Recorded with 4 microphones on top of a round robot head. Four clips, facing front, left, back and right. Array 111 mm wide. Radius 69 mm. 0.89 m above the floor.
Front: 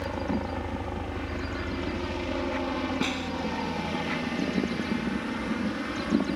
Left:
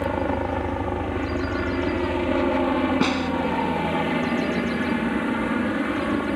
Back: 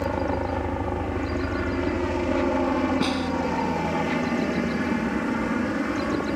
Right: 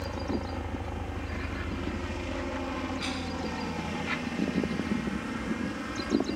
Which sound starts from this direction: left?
A snare drum, at 3.0 s.